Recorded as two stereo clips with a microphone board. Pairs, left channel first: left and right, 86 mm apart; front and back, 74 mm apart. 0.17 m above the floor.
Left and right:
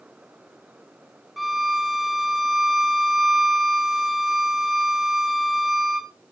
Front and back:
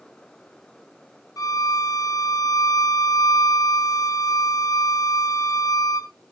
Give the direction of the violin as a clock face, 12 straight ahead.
12 o'clock.